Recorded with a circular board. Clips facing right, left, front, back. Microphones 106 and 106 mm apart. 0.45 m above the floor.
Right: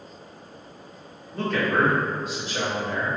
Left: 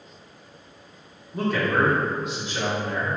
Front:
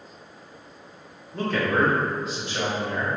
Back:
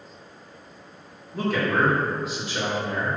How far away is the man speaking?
About 0.8 m.